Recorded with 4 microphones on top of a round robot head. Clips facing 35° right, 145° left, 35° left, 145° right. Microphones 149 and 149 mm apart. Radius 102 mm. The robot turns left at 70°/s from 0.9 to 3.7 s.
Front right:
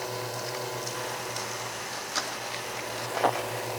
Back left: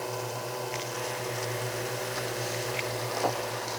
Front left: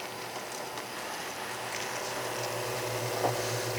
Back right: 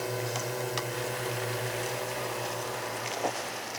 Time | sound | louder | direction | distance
0.0 | a drone | even, back right 7 dB | 125° right | ?